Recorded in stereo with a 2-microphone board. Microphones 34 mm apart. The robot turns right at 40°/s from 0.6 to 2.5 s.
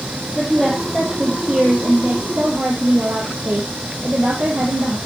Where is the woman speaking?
175° left, 3.5 m; by 5.0 s 105° right, 3.5 m.